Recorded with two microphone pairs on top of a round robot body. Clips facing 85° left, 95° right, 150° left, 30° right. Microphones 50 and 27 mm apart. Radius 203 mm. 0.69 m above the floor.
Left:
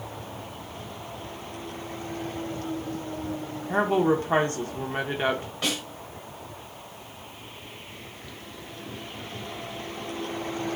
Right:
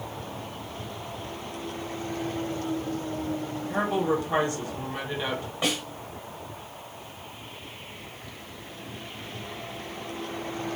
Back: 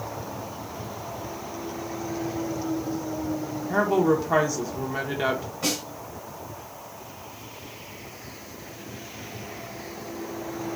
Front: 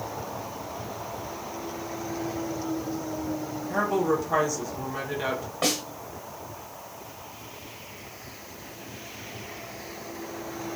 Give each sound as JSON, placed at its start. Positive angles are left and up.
{"t": 3.7, "sound": "a woman speaking", "azimuth_deg": 100, "distance_m": 0.7}
{"t": 5.6, "sound": "a snare drum", "azimuth_deg": -25, "distance_m": 1.1}